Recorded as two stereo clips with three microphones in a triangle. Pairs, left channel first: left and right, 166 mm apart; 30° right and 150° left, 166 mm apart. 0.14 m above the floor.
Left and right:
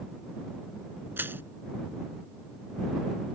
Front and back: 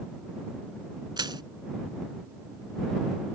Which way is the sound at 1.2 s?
160° right.